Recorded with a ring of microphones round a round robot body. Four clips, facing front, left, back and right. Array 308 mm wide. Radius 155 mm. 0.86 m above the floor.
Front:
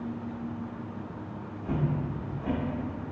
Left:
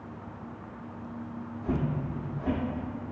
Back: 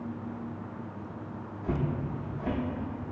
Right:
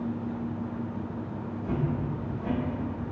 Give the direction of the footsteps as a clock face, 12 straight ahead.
7 o'clock.